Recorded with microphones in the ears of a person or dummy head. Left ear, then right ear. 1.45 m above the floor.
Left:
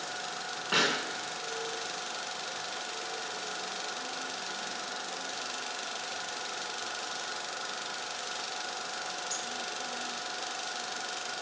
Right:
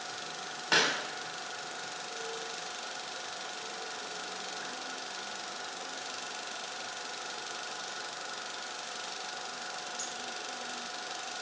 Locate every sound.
0.7 s a pop: 70° right (ahead or behind), 3 m